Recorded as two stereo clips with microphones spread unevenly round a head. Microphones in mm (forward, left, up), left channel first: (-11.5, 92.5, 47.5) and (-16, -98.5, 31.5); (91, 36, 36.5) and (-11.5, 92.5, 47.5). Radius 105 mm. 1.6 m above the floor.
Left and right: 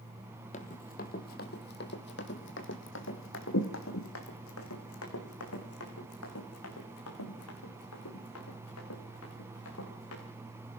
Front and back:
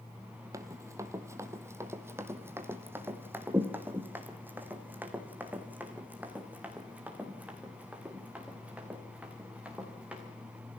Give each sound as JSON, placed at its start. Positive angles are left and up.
{"t": 0.5, "sound": "running footsteps", "azimuth_deg": 110, "distance_m": 2.0}